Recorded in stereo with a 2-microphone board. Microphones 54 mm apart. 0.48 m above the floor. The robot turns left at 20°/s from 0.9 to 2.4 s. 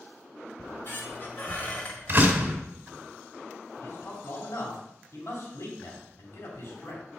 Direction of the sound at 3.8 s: 55° left (ahead or behind).